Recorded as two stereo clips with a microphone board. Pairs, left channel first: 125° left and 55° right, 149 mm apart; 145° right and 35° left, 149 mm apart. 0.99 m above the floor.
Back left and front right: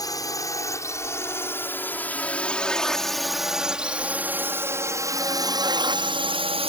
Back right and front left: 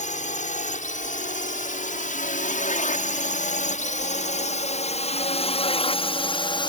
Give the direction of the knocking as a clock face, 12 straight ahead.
I don't hear knocking.